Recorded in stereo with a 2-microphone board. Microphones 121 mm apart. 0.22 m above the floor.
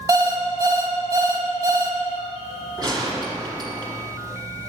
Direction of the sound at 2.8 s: 35° right (ahead or behind).